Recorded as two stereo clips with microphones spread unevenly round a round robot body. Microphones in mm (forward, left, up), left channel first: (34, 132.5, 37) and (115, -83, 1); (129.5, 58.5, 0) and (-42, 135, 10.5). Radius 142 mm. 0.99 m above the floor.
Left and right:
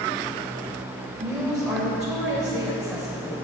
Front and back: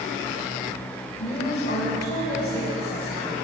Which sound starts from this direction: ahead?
A woman speaking, at 1.2 s.